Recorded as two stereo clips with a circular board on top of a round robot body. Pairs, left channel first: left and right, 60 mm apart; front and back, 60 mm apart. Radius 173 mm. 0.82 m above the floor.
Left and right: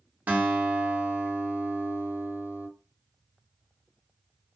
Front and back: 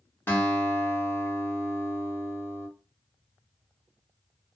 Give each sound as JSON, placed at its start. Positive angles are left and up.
{"t": 0.3, "sound": "a guitar", "azimuth_deg": -40, "distance_m": 1.2}